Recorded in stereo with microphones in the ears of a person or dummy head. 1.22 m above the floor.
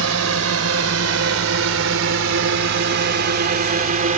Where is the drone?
80° right; by 4.2 s 40° right (ahead or behind).